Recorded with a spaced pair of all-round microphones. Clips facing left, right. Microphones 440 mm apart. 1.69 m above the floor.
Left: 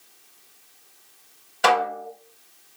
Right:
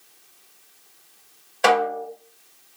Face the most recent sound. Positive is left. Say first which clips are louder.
# right 3 dB
turn(degrees=25)  # may be behind; listen again after turning